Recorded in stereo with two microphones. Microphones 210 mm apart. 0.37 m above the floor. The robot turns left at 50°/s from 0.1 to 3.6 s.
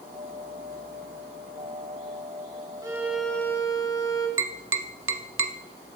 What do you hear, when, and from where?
2.8 s a violin: 160° right, 1.6 m; by 4.3 s 160° left, 1.6 m
4.4 s tapping: 80° right, 0.6 m